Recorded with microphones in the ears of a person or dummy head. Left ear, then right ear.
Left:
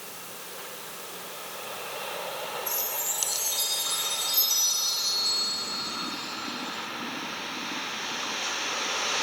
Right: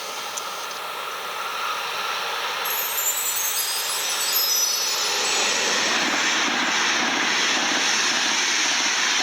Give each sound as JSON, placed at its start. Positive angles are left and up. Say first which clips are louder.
{"t": 2.6, "sound": "a chime", "louder": "right 7 dB", "side_deg": -60, "distance_m": 3.0}